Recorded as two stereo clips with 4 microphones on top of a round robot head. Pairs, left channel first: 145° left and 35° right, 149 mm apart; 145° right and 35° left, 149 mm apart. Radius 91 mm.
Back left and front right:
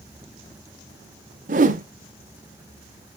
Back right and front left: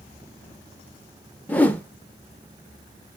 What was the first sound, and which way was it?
A whoosh, 65° right.